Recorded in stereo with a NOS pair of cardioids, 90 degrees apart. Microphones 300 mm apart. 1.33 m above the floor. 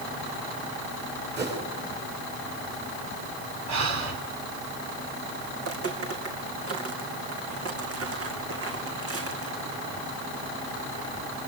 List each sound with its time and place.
1.4 s a whoosh: 35° right, 7 m
3.7 s breathing: 65° right, 4.5 m
5.6 s footsteps: 55° right, 4 m